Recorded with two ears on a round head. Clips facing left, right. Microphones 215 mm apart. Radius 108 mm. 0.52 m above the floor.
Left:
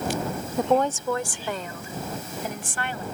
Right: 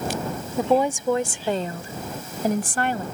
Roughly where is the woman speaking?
Centre.